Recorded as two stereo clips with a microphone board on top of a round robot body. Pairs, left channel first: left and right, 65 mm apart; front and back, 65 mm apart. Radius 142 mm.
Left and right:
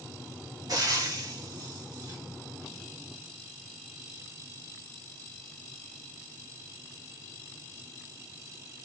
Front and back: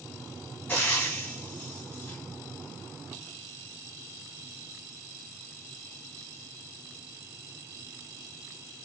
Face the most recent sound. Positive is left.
turn(degrees=-60)